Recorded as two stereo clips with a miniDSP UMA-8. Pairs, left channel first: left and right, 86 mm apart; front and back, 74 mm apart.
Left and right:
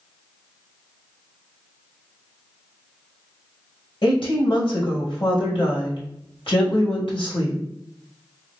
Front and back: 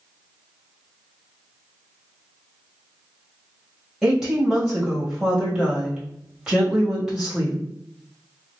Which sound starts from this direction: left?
A woman speaking, at 4.0 s.